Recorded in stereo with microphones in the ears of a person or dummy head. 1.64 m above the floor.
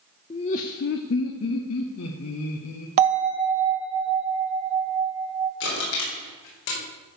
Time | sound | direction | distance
0.3 | laughter | 30° left (ahead or behind) | 0.6 m
3.0 | a bell | 35° right (ahead or behind) | 1.5 m
5.6 | crushing | 65° left (ahead or behind) | 5 m